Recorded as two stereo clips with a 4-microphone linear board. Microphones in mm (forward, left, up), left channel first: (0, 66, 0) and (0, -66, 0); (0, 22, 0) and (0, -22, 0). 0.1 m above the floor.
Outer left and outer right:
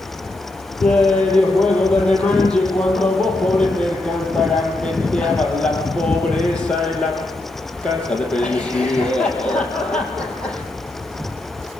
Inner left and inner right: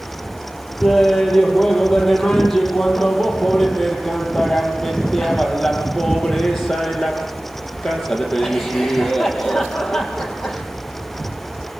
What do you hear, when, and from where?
0.8 s laughter: 5° left (ahead or behind), 4.5 m